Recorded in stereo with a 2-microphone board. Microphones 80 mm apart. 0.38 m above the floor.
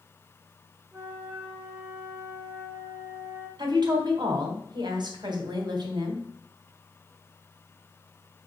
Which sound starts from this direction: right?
A woman speaking, at 3.6 s.